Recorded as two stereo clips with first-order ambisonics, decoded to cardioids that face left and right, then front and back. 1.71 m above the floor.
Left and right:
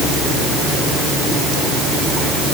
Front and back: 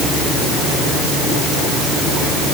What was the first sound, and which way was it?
Only background noise.